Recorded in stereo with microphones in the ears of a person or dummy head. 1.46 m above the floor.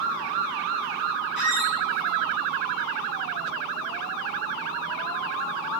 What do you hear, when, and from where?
1.4 s a squeak: 10° right (ahead or behind), 1.0 m